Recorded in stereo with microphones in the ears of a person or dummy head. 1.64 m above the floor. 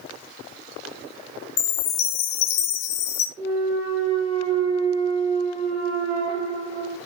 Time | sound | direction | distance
1.6 | a chime | 40° left (ahead or behind) | 0.6 m
3.4 | a clunk | 35° right (ahead or behind) | 2.5 m